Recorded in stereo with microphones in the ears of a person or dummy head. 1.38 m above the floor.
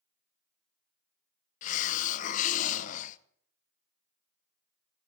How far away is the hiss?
About 0.9 m.